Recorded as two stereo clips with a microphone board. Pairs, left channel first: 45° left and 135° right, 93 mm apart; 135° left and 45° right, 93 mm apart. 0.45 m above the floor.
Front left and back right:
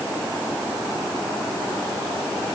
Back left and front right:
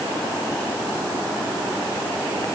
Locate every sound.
Only background noise.